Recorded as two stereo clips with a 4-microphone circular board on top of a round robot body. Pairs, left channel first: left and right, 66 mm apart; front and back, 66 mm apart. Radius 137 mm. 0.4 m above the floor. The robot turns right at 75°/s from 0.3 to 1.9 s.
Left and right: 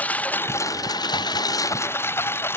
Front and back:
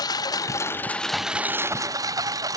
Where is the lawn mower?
25° left; by 2.6 s 145° left.